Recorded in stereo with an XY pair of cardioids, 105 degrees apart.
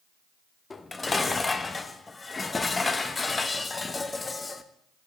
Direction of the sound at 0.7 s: 25° left.